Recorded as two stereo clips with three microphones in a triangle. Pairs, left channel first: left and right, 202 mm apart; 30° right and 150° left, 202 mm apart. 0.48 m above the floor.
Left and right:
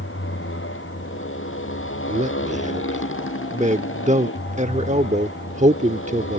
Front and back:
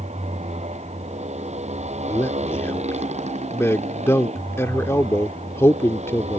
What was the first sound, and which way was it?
A motorcycle, 95° left.